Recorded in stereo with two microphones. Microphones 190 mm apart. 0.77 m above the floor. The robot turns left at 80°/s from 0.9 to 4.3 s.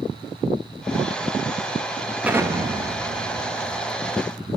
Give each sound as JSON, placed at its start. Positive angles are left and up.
{"t": 2.2, "sound": "an explosion", "azimuth_deg": -10, "distance_m": 0.7}